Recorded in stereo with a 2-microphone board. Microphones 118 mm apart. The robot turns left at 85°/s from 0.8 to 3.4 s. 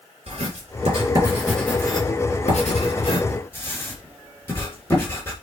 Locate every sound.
0.3 s writing: 60° right (ahead or behind), 3.5 m; by 5.3 s 20° left (ahead or behind), 3.5 m